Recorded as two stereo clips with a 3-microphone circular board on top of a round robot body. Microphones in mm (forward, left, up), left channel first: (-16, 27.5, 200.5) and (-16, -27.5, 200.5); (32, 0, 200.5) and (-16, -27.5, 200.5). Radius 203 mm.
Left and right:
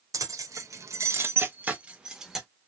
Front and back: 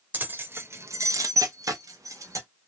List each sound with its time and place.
0.1 s keys jangling: 90° right, 0.9 m; by 2.5 s 175° right, 1.0 m